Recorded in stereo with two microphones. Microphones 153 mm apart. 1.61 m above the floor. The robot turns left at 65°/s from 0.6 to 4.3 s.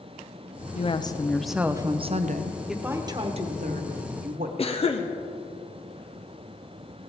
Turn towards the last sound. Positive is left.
turn(degrees=40)  # may be behind; listen again after turning